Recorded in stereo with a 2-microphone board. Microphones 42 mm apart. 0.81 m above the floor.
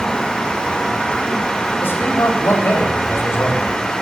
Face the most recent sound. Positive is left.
turn(degrees=70)  # may be behind; listen again after turning